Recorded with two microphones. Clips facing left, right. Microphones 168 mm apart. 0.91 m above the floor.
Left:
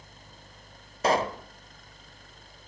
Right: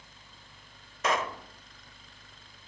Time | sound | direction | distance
1.0 | a pop | 35° left (ahead or behind) | 0.9 m